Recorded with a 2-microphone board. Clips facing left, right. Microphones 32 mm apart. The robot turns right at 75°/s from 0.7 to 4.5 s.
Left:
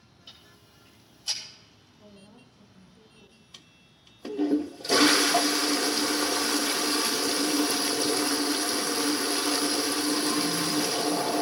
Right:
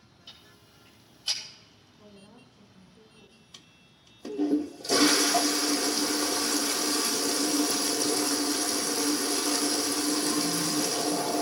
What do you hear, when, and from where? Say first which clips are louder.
0.3 s ticking: even; 10° left (ahead or behind), 7.5 m; by 1.4 s 40° right (ahead or behind), 7.5 m
2.0 s a woman speaking: even; 130° right, 3.5 m; by 3.4 s 20° right, 3.5 m
3.5 s a toilet flushing: left 1 dB; 15° left, 0.6 m; by 11.4 s 90° left, 0.6 m